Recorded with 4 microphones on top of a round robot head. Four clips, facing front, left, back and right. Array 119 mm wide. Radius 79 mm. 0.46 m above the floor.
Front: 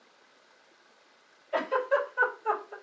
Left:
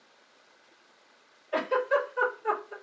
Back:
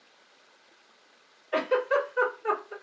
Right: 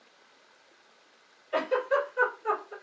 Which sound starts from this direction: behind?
A giggle, at 1.5 s.